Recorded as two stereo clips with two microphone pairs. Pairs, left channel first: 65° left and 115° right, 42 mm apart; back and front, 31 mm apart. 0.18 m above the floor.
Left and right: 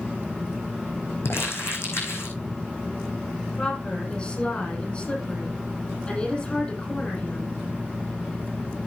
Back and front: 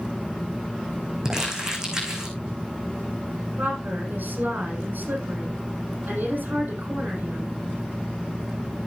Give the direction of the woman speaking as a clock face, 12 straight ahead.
12 o'clock.